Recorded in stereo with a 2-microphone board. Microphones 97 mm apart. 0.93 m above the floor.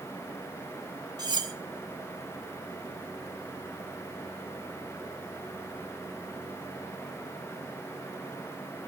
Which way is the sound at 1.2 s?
45° right (ahead or behind).